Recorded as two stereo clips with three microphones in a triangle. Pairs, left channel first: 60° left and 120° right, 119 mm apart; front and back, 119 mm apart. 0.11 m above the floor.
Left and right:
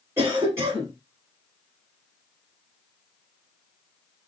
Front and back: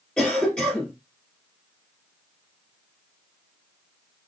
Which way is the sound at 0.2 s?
70° right.